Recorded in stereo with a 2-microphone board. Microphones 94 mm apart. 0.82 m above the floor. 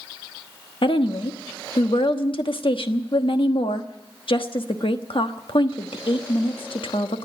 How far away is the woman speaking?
About 1.1 m.